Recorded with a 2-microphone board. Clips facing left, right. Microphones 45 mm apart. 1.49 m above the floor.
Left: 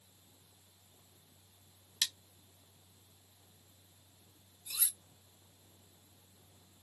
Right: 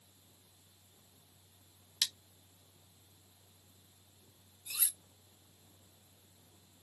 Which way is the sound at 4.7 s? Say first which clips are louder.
Even; 30° right (ahead or behind).